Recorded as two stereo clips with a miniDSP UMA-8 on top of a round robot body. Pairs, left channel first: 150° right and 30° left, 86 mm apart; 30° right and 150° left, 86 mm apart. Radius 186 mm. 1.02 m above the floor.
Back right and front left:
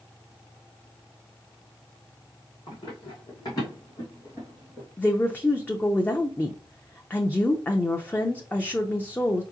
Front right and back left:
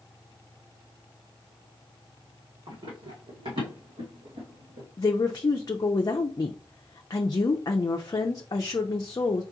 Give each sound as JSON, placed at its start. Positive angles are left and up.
{"t": 2.7, "sound": "running footsteps", "azimuth_deg": 175, "distance_m": 2.5}
{"t": 5.0, "sound": "a woman speaking", "azimuth_deg": -80, "distance_m": 0.5}